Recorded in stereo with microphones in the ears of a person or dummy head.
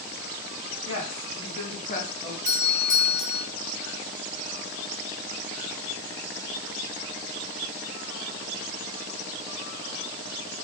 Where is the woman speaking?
85° left, 1.7 m; by 2.4 s 25° left (ahead or behind), 0.7 m.